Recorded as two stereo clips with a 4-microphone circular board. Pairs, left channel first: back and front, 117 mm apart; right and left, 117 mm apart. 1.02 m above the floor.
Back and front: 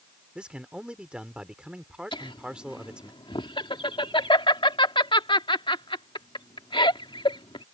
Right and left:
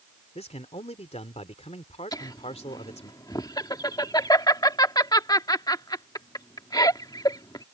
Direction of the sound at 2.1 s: 140° right.